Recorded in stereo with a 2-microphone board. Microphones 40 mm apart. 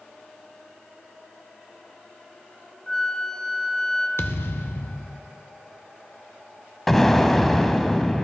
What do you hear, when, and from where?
2.9 s a flute: 15° left (ahead or behind), 1.0 m
4.2 s a thud: 70° left (ahead or behind), 0.6 m
6.9 s an explosion: 10° left (ahead or behind), 0.8 m